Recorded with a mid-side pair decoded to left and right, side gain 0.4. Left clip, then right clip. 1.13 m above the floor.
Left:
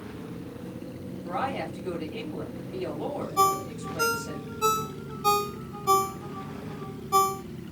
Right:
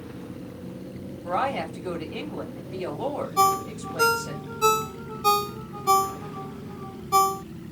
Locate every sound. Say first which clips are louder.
1.2 s a woman speaking: right 4 dB; 65° right, 2 m
3.4 s a ringtone: right 2 dB; 30° right, 0.8 m